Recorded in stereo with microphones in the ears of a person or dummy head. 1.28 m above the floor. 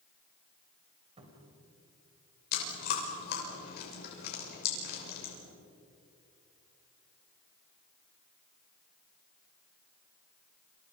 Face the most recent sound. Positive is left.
turn(degrees=55)  # may be behind; listen again after turning